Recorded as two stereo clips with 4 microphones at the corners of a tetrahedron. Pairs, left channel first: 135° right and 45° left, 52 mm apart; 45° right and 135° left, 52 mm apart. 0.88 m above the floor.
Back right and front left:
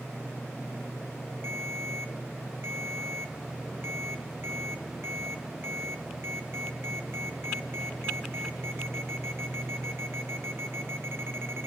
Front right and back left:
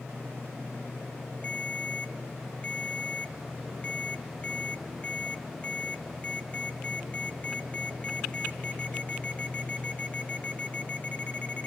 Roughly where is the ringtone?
Ahead.